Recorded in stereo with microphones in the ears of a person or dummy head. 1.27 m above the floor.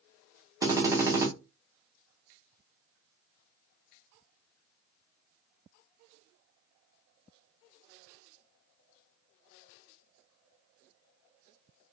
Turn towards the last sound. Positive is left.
turn(degrees=-20)  # may be behind; listen again after turning